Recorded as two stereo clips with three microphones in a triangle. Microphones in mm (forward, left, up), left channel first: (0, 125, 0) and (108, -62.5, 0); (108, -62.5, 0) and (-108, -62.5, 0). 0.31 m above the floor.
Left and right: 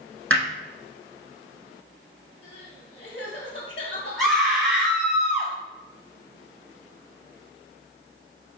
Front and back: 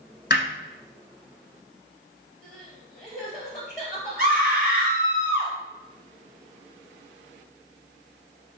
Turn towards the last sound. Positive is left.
turn(degrees=-150)